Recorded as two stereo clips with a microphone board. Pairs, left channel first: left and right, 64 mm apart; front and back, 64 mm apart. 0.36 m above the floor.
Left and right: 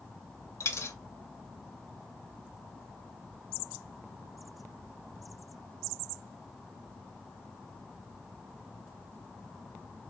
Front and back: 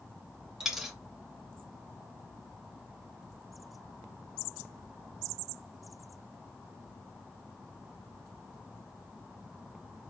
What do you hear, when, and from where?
0.6 s a dropped coin: 100° left, 0.6 m